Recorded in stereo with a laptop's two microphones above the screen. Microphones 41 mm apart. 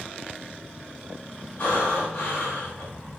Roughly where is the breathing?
Left.